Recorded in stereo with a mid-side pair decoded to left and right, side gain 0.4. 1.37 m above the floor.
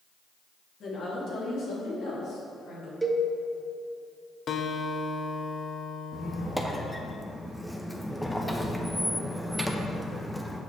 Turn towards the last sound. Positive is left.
turn(degrees=0)